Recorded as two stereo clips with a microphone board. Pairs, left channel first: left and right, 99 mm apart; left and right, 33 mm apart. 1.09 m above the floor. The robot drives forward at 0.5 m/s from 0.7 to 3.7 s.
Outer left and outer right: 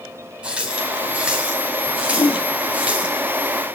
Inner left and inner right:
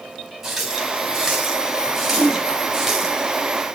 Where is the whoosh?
55° left (ahead or behind), 4 m.